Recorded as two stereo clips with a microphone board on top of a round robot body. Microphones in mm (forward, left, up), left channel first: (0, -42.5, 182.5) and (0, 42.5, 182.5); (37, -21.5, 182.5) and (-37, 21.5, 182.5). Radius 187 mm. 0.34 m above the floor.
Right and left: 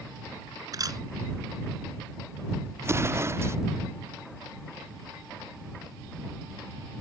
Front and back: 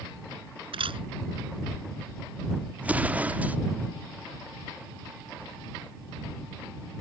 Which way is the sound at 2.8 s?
95° left.